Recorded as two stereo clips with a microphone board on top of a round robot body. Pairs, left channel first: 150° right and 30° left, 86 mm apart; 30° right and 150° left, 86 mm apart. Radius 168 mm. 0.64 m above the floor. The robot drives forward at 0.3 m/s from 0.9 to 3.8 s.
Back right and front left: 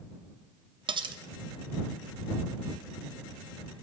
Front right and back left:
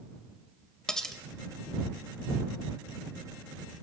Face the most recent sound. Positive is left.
turn(degrees=115)